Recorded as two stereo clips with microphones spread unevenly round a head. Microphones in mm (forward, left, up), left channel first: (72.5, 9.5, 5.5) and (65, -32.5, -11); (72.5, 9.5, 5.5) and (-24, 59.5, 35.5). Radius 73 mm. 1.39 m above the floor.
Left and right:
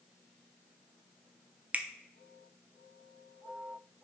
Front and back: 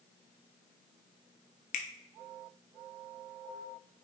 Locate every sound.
1.7 s a finger snap: 40° right, 0.8 m